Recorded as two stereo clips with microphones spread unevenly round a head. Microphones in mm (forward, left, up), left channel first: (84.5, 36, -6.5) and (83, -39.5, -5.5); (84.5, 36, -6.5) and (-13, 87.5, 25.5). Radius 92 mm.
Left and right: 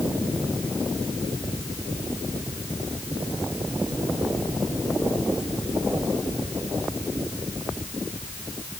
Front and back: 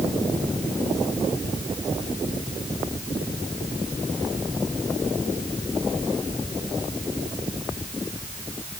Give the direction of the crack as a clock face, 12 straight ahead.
No crack in this recording.